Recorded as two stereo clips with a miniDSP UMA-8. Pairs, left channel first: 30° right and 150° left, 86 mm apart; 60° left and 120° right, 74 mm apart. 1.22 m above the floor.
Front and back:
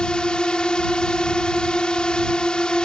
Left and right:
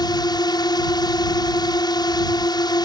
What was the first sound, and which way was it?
A drone, 50° left.